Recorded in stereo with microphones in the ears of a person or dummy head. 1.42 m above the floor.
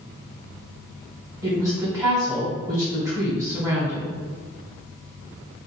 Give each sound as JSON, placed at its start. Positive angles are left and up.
{"t": 1.4, "sound": "a woman speaking", "side_deg": -15, "distance_m": 1.3}